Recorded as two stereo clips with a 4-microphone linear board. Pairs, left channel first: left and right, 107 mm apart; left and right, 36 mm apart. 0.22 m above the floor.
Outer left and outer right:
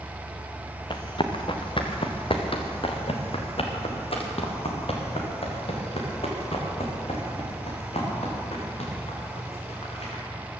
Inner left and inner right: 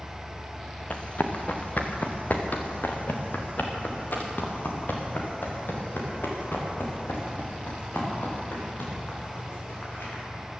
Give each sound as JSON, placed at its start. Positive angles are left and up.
{"t": 0.9, "sound": "running footsteps", "side_deg": 50, "distance_m": 1.7}